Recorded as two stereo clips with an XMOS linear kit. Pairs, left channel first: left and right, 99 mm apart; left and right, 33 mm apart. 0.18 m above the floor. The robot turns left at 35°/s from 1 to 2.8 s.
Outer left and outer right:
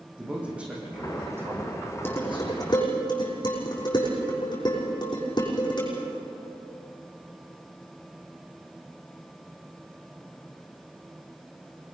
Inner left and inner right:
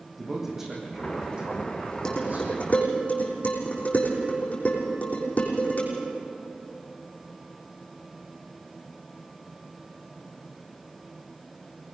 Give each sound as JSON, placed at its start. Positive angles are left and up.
{"t": 0.2, "sound": "a man speaking", "azimuth_deg": -10, "distance_m": 7.5}
{"t": 2.0, "sound": "dishes clattering", "side_deg": 20, "distance_m": 6.5}